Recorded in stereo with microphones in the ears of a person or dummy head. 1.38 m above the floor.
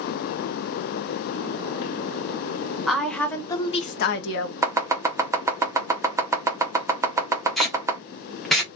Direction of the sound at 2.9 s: 5° left (ahead or behind).